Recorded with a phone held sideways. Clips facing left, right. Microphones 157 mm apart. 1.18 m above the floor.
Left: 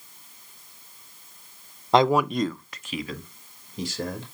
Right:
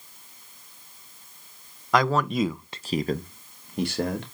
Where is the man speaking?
30° left (ahead or behind), 0.5 m; by 4.2 s 65° right (ahead or behind), 1.4 m.